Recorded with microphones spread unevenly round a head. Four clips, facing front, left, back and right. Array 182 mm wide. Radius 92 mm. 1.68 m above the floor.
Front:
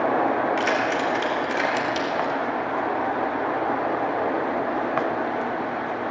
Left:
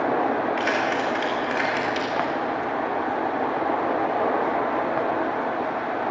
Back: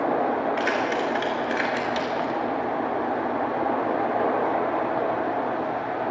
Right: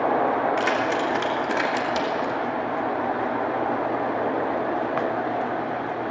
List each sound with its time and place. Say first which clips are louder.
0.6 s keys jangling: right 1 dB, front 1 dB; 105° right, 3 m; by 2.4 s 110° right, 2 m